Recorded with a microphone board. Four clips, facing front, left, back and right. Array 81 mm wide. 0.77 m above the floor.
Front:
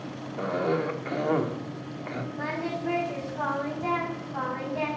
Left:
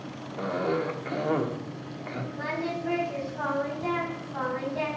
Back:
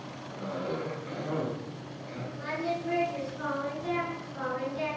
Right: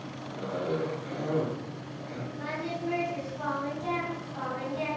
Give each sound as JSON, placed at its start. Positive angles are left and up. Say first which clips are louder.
{"t": 0.4, "sound": "a cough", "louder": "left 3 dB, front 7 dB", "azimuth_deg": 35, "distance_m": 1.5}
{"t": 2.4, "sound": "singing", "louder": "left 3 dB, back 1 dB", "azimuth_deg": 30, "distance_m": 4.0}